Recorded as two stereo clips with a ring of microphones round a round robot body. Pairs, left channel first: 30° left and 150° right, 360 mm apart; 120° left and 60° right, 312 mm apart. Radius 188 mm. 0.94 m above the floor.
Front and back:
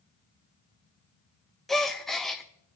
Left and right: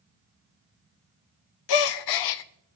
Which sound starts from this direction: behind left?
A gasp, at 1.7 s.